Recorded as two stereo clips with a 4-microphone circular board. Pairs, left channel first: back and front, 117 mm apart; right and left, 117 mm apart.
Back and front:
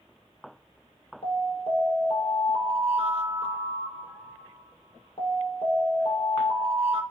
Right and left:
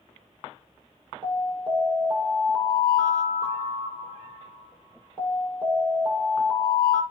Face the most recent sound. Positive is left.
turn(degrees=145)